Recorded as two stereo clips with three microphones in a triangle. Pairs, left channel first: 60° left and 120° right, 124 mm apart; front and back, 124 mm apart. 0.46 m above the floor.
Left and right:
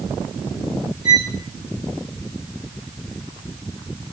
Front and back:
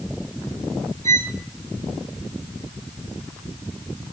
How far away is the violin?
About 3 m.